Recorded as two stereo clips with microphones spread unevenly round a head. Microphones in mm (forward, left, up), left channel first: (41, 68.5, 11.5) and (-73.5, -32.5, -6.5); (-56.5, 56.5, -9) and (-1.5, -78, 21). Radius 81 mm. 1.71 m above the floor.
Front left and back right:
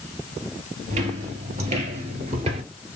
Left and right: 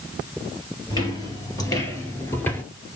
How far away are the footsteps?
About 2.5 m.